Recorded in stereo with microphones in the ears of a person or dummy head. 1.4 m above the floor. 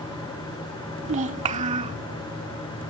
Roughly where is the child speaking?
Right.